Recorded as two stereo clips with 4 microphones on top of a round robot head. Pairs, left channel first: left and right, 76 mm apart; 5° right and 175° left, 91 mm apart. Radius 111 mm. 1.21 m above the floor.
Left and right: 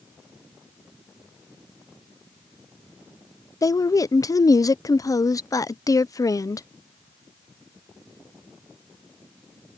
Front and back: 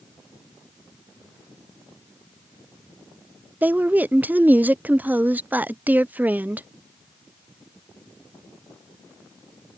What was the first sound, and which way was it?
A woman speaking, 110° left.